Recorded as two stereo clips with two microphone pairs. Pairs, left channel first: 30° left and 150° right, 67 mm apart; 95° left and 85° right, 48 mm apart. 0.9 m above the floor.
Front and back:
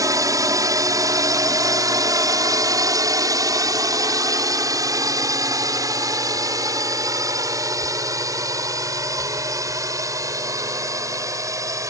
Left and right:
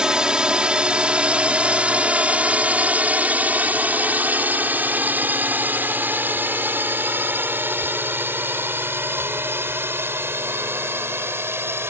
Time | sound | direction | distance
0.0 | a drone | 155° right | ?